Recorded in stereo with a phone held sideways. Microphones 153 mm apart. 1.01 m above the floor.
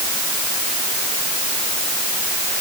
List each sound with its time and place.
Only background noise.